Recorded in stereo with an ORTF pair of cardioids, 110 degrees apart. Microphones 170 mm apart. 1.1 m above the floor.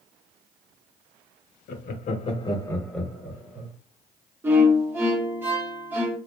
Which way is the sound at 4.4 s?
15° right.